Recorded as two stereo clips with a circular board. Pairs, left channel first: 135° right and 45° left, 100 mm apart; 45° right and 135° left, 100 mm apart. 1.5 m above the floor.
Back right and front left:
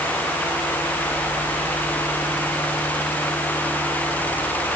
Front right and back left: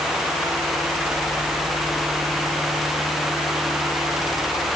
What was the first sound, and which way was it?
Only background noise.